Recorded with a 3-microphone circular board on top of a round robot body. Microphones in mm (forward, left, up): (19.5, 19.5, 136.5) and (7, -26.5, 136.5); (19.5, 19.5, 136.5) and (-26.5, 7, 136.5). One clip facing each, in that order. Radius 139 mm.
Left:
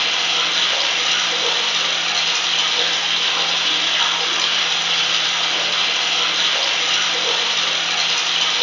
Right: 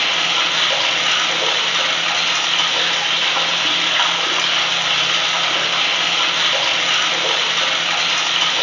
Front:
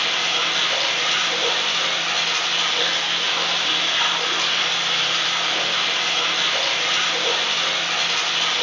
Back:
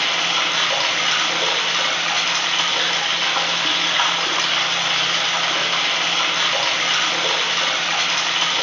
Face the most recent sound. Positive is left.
turn(degrees=-150)